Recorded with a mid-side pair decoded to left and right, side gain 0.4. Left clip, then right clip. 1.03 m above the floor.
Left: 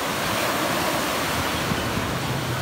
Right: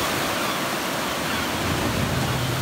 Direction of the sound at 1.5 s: 65° right.